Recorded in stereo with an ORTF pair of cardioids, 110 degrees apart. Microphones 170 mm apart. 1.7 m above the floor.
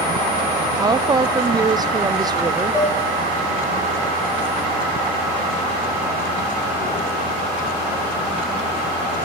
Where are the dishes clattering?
15° left, 9.5 m.